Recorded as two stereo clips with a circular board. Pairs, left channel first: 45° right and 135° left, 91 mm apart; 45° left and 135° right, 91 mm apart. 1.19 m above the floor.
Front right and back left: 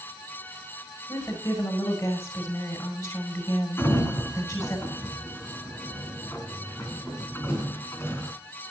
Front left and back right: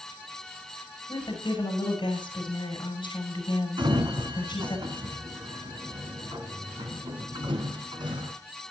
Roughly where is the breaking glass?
I don't hear breaking glass.